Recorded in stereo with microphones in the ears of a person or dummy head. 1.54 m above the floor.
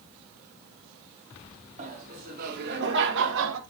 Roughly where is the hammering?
No hammering in this recording.